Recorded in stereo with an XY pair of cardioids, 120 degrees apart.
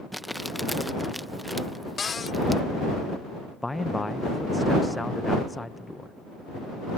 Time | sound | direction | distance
0.1 | crumpling | straight ahead | ?
2.0 | a cupboard door | 30° left | ?
3.6 | a man speaking | 10° left | ?